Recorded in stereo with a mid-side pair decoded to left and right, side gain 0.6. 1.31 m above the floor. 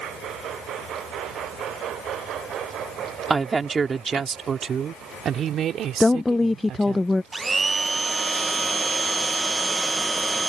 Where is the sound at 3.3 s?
25° right; by 7.0 s 60° right.